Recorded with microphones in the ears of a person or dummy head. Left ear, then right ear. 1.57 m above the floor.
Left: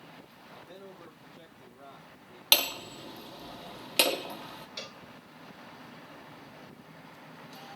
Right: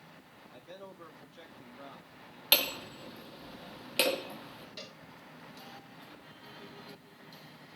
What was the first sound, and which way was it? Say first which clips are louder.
A man speaking: even; 80° right.